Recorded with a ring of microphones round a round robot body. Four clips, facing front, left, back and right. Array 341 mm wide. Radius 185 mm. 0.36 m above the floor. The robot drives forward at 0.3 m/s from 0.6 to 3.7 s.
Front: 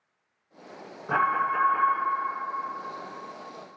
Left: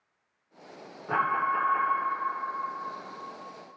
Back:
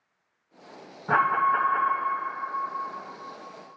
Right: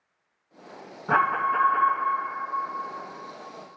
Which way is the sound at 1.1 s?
145° right.